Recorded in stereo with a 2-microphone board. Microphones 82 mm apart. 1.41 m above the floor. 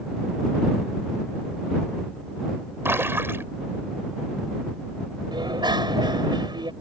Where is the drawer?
No drawer in this recording.